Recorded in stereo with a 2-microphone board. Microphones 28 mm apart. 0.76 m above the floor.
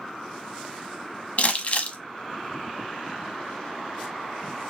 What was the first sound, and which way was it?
Crumpling, 50° left (ahead or behind).